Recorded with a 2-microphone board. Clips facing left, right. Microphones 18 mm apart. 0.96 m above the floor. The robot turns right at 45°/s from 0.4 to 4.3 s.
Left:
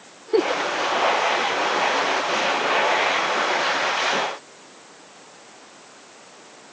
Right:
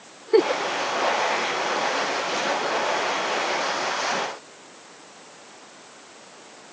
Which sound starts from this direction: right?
A giggle, at 0.3 s.